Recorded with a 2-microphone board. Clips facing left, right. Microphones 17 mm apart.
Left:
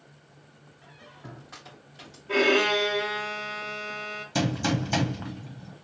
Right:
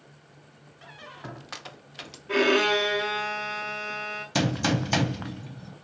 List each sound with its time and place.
0.8 s a squeak: 50° right (ahead or behind), 0.5 m
2.3 s a violin: 15° right (ahead or behind), 0.8 m
4.3 s a gunshot: 25° right (ahead or behind), 0.7 m